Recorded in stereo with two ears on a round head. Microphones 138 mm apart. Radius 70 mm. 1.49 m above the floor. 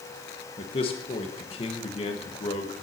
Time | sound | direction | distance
0.6 | a man speaking | 35° left (ahead or behind) | 1.3 m